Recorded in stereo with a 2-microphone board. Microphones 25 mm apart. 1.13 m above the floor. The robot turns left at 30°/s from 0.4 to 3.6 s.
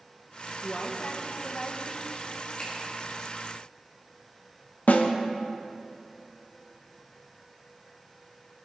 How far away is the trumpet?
I don't hear a trumpet.